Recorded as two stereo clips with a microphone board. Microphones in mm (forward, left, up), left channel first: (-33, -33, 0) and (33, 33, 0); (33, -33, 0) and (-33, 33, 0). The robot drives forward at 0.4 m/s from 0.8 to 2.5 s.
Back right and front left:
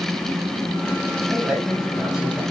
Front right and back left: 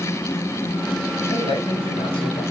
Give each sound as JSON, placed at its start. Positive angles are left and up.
{"t": 1.3, "sound": "a man speaking", "azimuth_deg": -35, "distance_m": 8.0}